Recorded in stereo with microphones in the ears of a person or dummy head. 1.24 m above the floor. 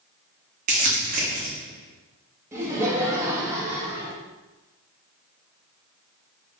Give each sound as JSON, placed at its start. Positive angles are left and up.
{"t": 0.7, "sound": "crumpling", "side_deg": -40, "distance_m": 1.1}
{"t": 2.5, "sound": "laughter", "side_deg": -15, "distance_m": 1.1}